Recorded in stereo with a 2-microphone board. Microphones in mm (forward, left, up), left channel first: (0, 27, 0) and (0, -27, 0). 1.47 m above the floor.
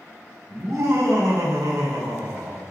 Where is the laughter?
70° right (ahead or behind), 5 m; by 2.6 s 85° right, 3.5 m.